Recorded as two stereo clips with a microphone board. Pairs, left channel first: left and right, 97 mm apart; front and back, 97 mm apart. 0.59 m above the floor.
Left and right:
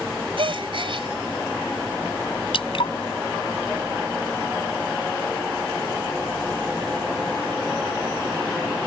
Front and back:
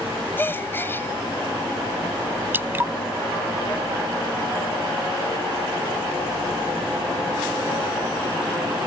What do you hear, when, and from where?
0.4 s a gasp: 65° right
2.5 s dripping: 110° left